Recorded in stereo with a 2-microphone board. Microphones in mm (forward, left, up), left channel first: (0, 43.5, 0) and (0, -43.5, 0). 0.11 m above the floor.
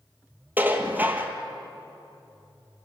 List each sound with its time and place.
0.6 s dishes clattering: 20° right (ahead or behind), 2.0 m